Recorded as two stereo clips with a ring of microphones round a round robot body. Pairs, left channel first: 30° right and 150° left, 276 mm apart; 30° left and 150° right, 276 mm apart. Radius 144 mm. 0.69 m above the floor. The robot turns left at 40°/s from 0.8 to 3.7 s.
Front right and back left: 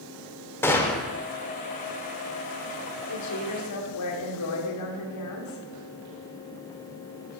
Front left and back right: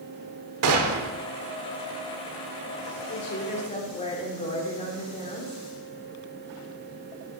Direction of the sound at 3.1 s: 15° right.